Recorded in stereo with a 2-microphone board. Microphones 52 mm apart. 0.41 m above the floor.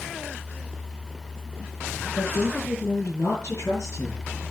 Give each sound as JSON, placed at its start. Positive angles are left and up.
{"t": 2.1, "sound": "a woman speaking", "side_deg": 55, "distance_m": 7.0}